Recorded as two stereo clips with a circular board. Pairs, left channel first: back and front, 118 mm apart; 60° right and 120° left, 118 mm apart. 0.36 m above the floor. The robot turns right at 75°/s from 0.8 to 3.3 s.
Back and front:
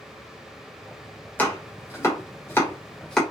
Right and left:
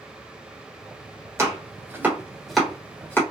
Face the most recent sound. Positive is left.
turn(degrees=-95)